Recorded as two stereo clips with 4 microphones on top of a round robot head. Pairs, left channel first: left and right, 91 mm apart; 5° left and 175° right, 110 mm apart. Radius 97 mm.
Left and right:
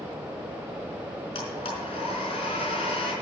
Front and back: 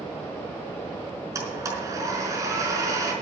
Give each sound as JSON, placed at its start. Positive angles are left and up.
{"t": 1.4, "sound": "a blender", "azimuth_deg": 125, "distance_m": 4.5}